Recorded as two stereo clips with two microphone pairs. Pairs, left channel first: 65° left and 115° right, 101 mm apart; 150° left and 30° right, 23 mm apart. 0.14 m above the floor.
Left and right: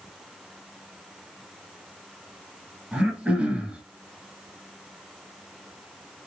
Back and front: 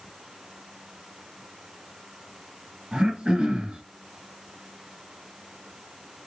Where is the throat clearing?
40° right, 1.5 m.